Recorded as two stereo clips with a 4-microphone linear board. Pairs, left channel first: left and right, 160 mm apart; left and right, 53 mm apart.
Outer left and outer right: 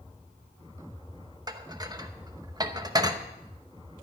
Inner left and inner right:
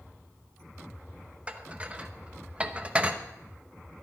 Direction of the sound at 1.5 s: 25° right (ahead or behind).